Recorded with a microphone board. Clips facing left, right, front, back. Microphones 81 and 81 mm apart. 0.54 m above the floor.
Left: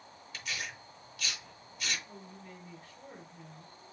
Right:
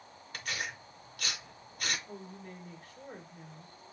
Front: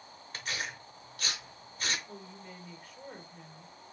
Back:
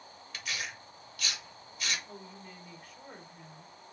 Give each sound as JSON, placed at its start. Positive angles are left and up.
{"t": 0.3, "sound": "tearing paper", "azimuth_deg": -50, "distance_m": 0.9}
{"t": 2.1, "sound": "a woman speaking", "azimuth_deg": -90, "distance_m": 1.9}